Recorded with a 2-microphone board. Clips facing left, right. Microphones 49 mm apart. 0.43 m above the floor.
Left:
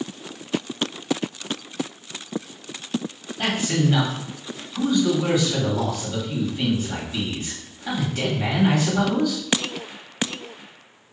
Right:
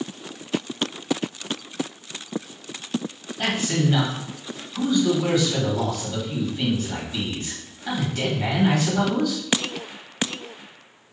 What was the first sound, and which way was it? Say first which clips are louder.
A man speaking: left 1 dB; 10° left (ahead or behind).